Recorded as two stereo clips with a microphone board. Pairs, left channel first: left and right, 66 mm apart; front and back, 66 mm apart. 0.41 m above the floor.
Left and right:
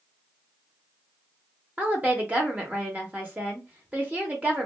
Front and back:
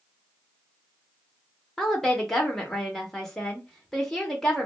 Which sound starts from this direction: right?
A woman speaking, at 1.8 s.